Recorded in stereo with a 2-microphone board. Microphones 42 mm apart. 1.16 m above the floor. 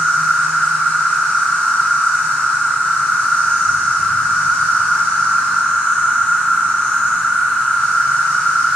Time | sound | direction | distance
0.0 | an insect | 35° left (ahead or behind) | 1.4 m